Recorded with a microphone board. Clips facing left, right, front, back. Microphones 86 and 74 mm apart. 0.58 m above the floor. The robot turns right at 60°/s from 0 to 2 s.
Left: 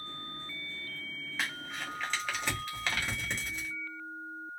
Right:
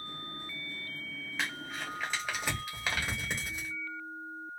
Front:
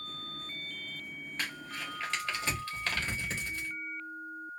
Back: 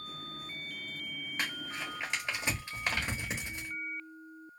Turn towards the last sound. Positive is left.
turn(degrees=-150)